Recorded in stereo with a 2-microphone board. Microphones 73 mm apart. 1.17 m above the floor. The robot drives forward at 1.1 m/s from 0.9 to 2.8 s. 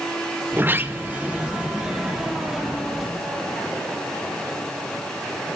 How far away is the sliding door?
About 0.6 m.